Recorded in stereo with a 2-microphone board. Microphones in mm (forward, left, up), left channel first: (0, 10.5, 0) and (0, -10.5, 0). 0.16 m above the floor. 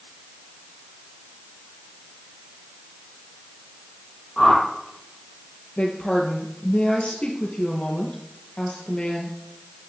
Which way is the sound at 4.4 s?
10° left (ahead or behind).